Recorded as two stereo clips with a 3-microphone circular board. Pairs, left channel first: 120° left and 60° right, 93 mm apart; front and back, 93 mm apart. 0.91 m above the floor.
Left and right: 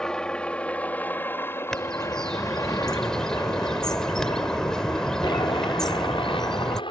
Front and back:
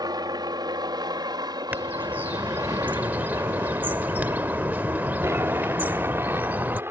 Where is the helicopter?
160° right; by 6.9 s 120° left.